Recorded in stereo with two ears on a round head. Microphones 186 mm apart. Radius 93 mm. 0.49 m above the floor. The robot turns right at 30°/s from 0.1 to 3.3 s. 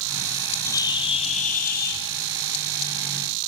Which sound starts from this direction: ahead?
A bird, at 0.7 s.